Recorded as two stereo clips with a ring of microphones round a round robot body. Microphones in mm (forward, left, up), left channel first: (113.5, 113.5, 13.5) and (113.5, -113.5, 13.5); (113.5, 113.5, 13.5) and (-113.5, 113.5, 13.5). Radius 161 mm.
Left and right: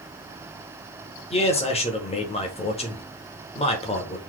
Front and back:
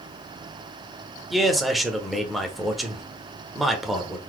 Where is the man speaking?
90° left, 0.8 m.